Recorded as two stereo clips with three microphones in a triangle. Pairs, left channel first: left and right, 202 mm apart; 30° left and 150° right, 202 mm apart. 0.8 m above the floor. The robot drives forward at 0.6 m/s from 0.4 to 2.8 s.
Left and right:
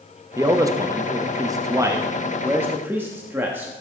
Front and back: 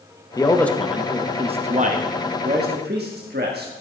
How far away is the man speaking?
About 0.8 m.